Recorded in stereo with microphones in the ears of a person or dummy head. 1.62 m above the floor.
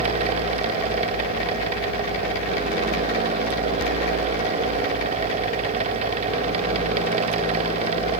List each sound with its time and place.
Only background noise.